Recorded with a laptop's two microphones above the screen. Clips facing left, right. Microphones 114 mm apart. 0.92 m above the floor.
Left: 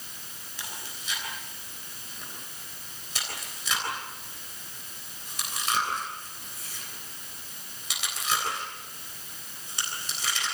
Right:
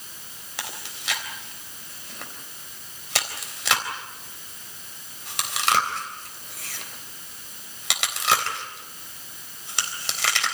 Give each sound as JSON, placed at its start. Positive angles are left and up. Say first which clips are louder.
{"t": 0.6, "sound": "chewing", "louder": "right 5 dB", "side_deg": -85, "distance_m": 3.5}